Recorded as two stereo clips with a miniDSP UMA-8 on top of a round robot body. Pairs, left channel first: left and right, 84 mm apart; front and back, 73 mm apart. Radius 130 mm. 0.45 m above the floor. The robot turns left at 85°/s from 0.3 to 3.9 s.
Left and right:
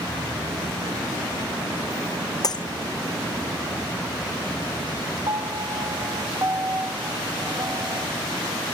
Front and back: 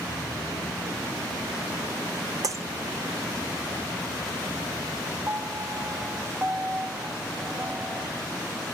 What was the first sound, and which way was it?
Breaking glass, 140° left.